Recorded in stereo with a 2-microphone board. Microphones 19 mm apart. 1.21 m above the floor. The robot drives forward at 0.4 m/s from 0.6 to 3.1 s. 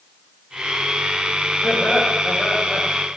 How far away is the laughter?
About 6.5 m.